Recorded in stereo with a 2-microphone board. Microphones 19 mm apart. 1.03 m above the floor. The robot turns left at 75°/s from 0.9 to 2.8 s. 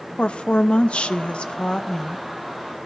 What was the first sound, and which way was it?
A woman speaking, 105° left.